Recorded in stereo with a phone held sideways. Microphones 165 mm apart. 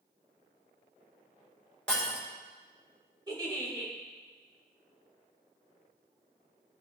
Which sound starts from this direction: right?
A giggle, at 3.3 s.